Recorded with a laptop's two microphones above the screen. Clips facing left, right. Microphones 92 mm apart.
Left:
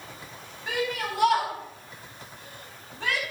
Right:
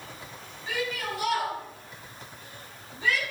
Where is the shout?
75° left (ahead or behind), 6.5 m.